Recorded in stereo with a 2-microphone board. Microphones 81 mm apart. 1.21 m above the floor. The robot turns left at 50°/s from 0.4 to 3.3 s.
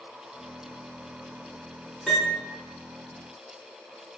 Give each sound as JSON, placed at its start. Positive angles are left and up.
{"t": 2.1, "sound": "a piano", "side_deg": 5, "distance_m": 3.5}